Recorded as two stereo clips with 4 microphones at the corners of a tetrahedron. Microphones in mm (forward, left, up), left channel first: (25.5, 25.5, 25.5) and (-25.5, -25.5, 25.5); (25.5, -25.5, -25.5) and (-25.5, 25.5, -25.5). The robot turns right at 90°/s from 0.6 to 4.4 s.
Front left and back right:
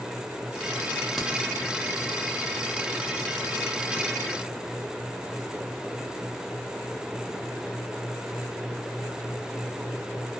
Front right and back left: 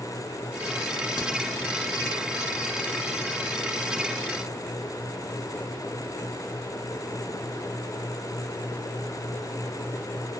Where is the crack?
40° right, 1.2 m; by 1.3 s 25° right, 1.2 m.